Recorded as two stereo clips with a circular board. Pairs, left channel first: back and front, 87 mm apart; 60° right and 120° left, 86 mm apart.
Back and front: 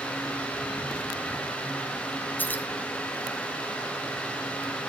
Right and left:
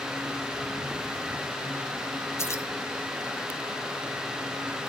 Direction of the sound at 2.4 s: 110° right.